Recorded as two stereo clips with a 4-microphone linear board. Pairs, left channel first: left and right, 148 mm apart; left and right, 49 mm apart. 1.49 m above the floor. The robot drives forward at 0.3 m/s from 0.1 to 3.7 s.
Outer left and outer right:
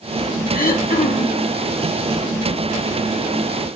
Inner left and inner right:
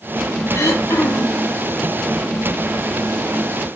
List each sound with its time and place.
0.5 s throat clearing: 80° left, 0.7 m; by 1.5 s 60° left (ahead or behind), 0.8 m